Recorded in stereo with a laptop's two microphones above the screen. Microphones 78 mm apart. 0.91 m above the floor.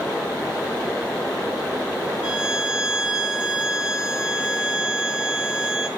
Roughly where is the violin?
Centre.